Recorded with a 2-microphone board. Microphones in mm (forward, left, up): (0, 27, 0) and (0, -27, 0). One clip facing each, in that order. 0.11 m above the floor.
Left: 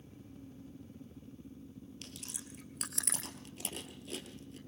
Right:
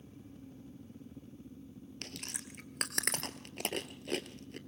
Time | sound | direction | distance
2.0 | chewing | 60° right (ahead or behind) | 1.4 m